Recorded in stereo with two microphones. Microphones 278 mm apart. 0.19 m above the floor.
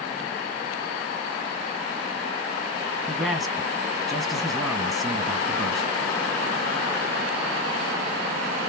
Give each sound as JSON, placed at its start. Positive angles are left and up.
{"t": 3.1, "sound": "a man speaking", "side_deg": 0, "distance_m": 1.2}